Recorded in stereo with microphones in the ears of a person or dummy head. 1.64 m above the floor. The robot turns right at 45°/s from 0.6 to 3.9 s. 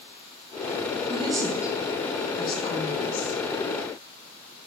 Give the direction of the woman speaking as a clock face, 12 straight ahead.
1 o'clock.